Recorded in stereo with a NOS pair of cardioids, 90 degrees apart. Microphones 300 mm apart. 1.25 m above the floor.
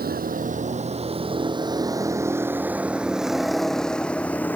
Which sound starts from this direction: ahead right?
A vehicle, at 0.0 s.